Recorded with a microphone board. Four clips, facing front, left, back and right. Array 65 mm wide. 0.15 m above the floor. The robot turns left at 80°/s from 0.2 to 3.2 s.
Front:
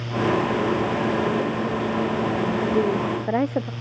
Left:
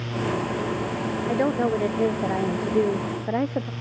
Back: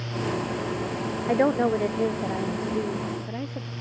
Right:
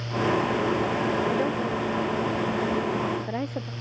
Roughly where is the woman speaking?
Behind.